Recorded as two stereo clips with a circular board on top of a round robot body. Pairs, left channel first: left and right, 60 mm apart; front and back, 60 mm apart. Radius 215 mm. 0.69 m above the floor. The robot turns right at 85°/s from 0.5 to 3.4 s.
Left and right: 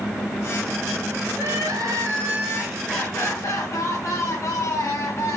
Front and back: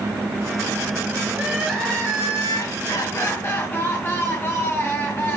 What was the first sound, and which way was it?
Crying, 125° right.